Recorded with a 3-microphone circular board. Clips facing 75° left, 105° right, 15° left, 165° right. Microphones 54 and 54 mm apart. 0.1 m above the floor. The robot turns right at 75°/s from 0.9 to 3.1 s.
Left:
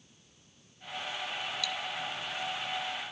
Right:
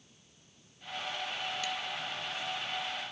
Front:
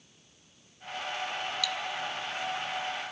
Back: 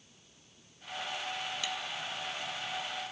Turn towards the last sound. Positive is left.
turn(degrees=-15)